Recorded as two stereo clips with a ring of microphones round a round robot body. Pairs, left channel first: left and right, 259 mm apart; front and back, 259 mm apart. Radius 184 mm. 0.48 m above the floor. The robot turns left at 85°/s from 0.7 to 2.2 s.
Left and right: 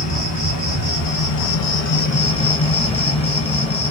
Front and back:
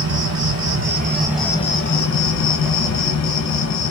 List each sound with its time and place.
0.0 s an insect: 150° left, 1.3 m; by 3.9 s 20° left, 1.3 m